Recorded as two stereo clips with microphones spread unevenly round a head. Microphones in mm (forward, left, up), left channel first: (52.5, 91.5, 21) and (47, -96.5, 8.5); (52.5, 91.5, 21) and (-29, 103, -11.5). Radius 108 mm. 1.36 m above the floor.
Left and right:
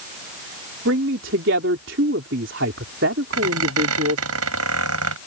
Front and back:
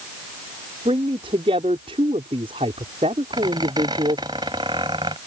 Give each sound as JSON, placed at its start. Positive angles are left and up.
{"t": 0.8, "sound": "a man speaking", "azimuth_deg": -130}
{"t": 3.3, "sound": "a squeak", "azimuth_deg": -115}